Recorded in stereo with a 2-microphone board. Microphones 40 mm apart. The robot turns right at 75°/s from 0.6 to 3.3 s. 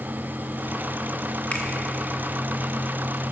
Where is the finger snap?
40° left (ahead or behind), 0.9 m; by 1.7 s 35° left (ahead or behind), 0.9 m.